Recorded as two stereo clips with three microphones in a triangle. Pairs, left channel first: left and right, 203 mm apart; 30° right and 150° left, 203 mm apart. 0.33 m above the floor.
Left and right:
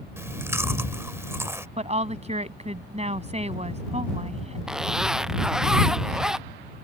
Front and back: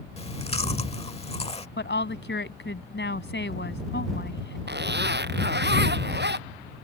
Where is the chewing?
25° right.